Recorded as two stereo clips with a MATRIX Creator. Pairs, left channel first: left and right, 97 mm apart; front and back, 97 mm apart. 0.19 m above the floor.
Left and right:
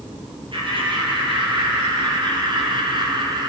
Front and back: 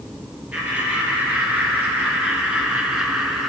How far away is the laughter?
About 3.5 m.